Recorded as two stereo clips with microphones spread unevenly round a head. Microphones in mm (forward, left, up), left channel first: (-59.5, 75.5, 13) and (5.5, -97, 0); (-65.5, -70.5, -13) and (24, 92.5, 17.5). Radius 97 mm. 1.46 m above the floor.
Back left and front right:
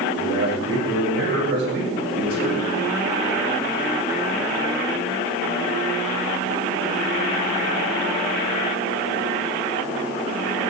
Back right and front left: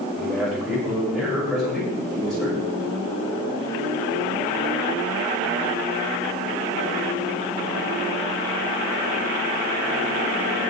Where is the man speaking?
30° right, 6 m.